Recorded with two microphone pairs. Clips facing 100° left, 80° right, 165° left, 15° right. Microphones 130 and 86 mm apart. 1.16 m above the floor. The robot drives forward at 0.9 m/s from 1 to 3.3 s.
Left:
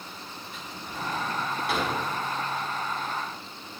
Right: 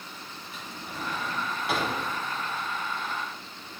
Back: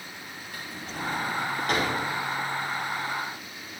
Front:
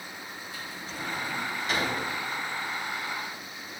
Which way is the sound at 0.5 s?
165° right.